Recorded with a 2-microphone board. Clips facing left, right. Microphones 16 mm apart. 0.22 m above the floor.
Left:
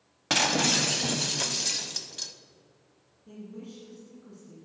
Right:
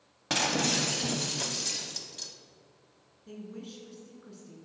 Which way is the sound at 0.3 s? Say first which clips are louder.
Left 4 dB; 25° left (ahead or behind).